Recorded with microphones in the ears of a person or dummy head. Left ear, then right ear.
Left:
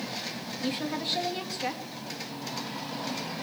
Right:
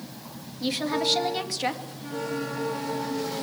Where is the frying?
I don't hear frying.